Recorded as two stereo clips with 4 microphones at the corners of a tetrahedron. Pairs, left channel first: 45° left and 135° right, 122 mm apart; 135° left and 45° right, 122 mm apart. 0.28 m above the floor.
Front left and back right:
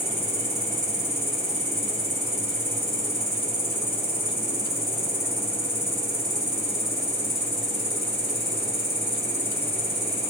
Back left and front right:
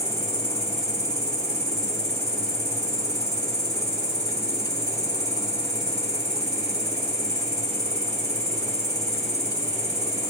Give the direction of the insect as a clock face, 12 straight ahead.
9 o'clock.